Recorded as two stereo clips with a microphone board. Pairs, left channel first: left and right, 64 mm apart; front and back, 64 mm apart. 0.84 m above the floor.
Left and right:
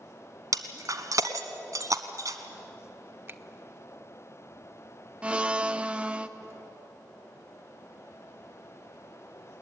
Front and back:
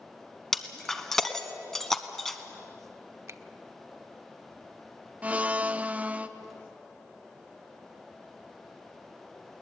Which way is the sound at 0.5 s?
80° right.